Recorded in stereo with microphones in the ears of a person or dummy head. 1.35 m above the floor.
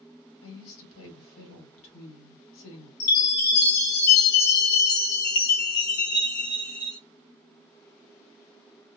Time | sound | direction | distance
0.4 | a woman speaking | 70° left (ahead or behind) | 1.6 m
3.0 | a chime | 50° left (ahead or behind) | 1.2 m